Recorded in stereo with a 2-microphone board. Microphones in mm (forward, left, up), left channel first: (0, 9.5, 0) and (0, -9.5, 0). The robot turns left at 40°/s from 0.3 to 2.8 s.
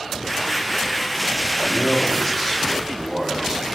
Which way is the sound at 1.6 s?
175° right.